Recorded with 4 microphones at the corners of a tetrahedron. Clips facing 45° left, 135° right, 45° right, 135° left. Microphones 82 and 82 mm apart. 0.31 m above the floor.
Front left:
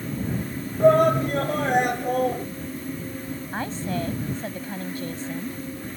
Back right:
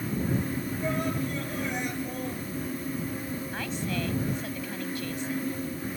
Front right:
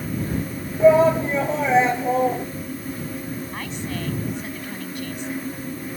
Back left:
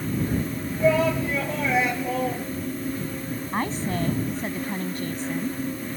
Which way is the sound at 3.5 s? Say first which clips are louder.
Front left 6 dB, back left 4 dB; 90° left.